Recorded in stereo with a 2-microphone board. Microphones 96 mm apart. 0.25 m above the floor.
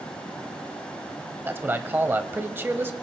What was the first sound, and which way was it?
A man speaking, 20° right (ahead or behind).